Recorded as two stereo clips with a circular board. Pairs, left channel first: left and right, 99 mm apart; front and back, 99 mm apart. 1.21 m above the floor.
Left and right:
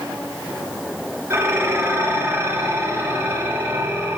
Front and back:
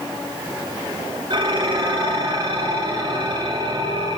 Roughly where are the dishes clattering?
Behind right.